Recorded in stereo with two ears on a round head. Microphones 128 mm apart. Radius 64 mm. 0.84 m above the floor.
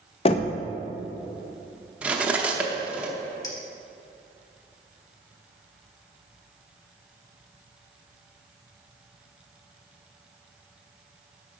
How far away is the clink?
About 1.3 m.